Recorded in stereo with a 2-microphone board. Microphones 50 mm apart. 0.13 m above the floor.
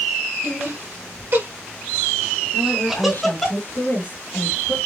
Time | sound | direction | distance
0.4 | laughter | 60° right (ahead or behind) | 2.5 m
2.5 | a woman speaking | 55° left (ahead or behind) | 3 m